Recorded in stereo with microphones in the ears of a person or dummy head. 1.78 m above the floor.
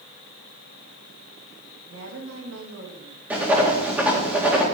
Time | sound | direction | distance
1.9 | a woman speaking | 85° right | 3 m
3.3 | writing | 5° right (ahead or behind) | 2.0 m